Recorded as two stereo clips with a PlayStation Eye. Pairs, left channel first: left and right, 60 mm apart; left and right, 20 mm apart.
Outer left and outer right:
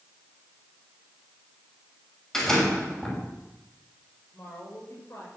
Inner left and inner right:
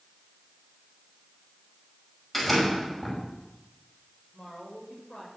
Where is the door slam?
10° left (ahead or behind), 6 m.